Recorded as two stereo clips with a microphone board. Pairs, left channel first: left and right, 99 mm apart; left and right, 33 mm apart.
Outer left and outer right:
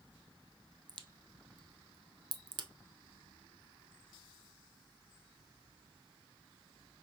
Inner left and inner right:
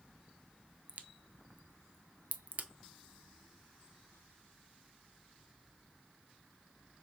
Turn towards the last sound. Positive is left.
turn(degrees=-50)  # may be behind; listen again after turning